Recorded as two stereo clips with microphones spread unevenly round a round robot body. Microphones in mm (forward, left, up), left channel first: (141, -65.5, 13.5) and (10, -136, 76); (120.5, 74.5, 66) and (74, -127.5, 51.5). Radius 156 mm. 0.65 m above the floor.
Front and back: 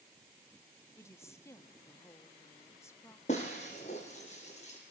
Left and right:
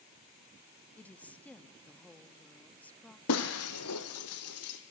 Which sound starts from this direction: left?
Breaking glass, at 3.3 s.